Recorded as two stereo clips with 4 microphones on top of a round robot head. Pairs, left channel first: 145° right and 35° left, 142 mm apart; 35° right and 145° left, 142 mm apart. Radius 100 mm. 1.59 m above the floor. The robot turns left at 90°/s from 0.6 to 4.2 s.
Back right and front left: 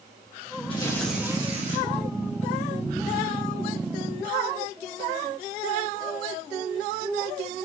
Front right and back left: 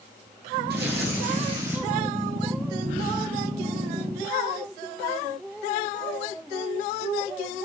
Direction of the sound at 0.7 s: 160° left.